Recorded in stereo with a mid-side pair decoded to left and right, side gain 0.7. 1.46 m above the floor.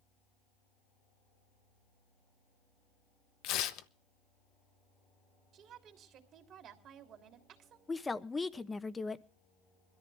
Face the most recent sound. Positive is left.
turn(degrees=15)